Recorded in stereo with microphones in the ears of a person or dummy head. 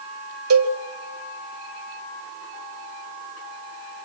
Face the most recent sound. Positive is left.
turn(degrees=-85)